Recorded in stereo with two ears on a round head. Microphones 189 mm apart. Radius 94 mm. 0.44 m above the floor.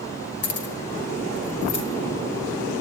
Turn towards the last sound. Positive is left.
turn(degrees=80)